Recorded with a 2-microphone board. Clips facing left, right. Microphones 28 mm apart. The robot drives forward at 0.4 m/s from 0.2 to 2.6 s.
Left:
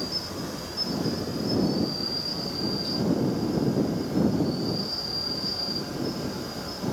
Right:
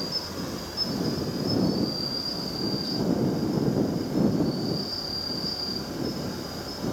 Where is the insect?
5° right (ahead or behind), 1.0 m.